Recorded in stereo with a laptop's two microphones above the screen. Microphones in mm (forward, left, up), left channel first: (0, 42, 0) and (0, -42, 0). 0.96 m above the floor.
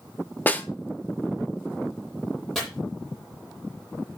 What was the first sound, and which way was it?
A snare drum, 20° left (ahead or behind).